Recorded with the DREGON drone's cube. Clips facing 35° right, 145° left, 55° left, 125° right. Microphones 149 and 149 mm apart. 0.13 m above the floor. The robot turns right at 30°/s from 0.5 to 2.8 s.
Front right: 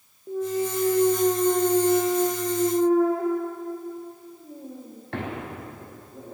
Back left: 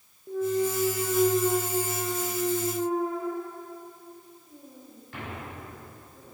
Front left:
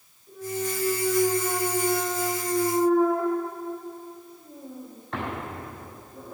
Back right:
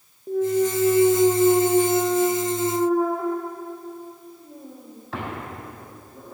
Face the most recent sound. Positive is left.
turn(degrees=-35)